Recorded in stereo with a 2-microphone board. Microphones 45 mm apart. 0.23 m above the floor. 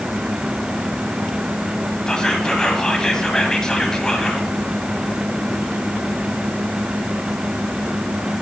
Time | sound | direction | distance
2.1 | whispering | 15° left (ahead or behind) | 1.5 m